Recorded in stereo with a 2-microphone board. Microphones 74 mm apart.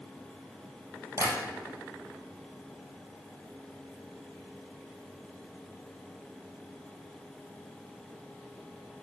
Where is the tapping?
45° right (ahead or behind), 3 m.